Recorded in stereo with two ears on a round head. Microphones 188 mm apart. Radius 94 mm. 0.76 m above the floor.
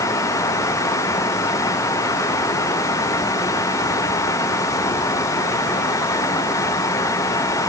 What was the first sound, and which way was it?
Only background noise.